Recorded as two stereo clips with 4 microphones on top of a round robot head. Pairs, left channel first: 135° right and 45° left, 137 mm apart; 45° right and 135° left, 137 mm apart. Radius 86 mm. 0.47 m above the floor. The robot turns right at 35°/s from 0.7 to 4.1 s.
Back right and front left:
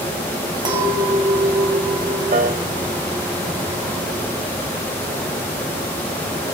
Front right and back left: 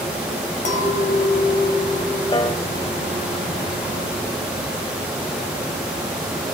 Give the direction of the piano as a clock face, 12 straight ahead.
12 o'clock.